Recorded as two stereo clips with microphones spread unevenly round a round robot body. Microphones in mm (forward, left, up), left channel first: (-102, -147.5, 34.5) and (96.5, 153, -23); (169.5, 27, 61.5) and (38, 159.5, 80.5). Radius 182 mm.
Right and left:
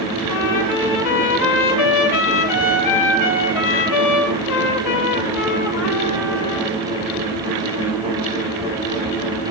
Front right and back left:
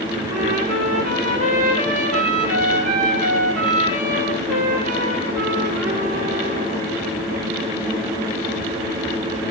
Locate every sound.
0.3 s a trumpet: 160° right, 6 m